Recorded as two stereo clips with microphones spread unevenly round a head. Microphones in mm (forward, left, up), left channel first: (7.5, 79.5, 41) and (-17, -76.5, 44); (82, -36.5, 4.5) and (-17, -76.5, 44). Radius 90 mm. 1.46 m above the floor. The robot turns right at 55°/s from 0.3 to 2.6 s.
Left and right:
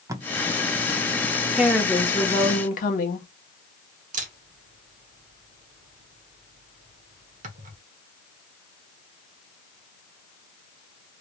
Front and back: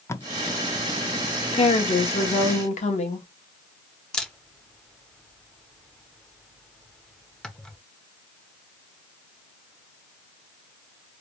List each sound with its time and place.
0.1 s tape being pulled: 30° right, 0.6 m
1.5 s a woman speaking: 15° right, 1.2 m; by 3.3 s 40° left, 1.2 m
4.1 s a camera shutter: 55° right, 1.1 m